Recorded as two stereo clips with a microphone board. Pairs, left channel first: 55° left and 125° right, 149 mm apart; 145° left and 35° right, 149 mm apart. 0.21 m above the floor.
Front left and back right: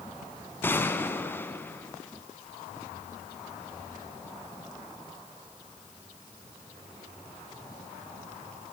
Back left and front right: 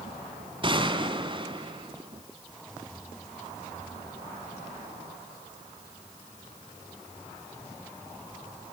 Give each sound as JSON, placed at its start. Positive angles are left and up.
{"t": 0.6, "sound": "a gunshot", "azimuth_deg": -10, "distance_m": 1.2}